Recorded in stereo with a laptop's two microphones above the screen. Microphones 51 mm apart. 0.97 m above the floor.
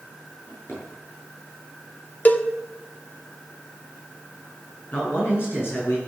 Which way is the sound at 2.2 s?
35° left (ahead or behind).